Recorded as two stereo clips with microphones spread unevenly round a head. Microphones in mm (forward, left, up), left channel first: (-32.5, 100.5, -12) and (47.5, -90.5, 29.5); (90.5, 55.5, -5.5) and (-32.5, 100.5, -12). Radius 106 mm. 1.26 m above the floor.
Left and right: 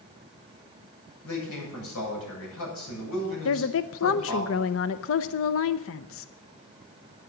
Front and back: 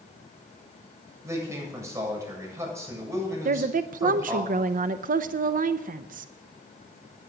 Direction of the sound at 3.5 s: 145° left.